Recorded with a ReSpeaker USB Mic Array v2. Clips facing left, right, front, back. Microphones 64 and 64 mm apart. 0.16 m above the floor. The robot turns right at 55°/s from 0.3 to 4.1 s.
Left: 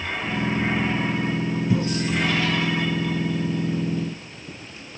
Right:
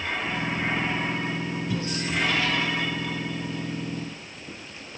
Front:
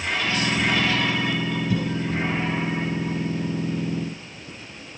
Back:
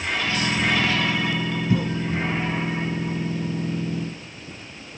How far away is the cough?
About 1.4 m.